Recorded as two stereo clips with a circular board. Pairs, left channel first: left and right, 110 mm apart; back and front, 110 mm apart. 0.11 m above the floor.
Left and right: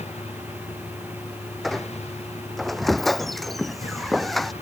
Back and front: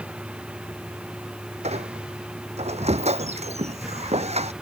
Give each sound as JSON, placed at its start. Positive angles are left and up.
{"t": 0.0, "sound": "a vehicle", "azimuth_deg": 80}
{"t": 1.6, "sound": "a squeak", "azimuth_deg": 0}